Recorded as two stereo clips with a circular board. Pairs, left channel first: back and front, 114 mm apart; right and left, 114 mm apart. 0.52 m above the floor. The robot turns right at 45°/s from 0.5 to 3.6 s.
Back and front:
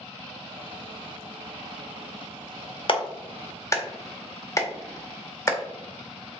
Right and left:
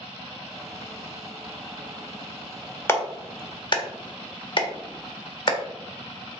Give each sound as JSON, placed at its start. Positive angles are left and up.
{"t": 2.9, "sound": "a clap", "azimuth_deg": -155, "distance_m": 1.5}